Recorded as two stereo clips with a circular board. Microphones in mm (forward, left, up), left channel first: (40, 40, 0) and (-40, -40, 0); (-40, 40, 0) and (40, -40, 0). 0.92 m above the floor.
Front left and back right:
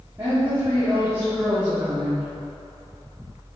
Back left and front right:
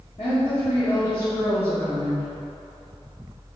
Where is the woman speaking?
160° left, 2 m; by 2.3 s 165° left, 1.0 m.